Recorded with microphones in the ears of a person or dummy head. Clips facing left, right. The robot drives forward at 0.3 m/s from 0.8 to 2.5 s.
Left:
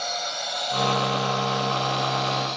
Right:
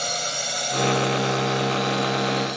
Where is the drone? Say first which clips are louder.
Right 1 dB; 45° right (ahead or behind); by 2.6 s 10° right (ahead or behind).